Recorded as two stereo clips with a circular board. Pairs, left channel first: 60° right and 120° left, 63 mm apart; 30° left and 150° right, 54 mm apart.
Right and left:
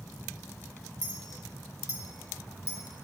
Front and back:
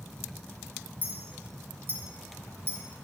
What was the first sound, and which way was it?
A clink, 100° right.